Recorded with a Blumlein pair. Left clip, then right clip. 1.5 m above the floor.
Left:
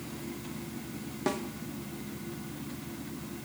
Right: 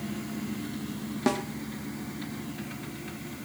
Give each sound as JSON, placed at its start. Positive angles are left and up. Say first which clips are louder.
{"t": 1.3, "sound": "a snare drum", "louder": "right 4 dB", "azimuth_deg": -15, "distance_m": 0.6}